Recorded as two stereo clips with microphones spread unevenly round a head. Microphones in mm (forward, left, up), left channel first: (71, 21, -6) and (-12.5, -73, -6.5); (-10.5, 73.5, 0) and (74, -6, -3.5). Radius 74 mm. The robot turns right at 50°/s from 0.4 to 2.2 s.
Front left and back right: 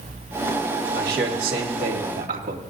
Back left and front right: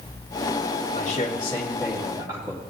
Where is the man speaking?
175° right, 2.5 m; by 2.6 s 115° right, 2.5 m.